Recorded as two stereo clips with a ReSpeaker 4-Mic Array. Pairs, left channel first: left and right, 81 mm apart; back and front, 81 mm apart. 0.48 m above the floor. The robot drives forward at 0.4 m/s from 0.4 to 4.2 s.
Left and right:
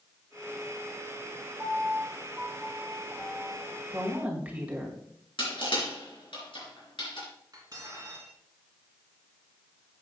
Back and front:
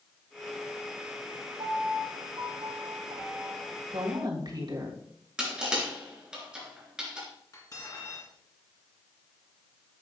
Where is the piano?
15° right, 3.5 m; by 3.8 s 20° right, 2.5 m.